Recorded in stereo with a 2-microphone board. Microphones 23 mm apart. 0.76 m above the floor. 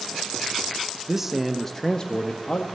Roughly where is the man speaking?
Centre.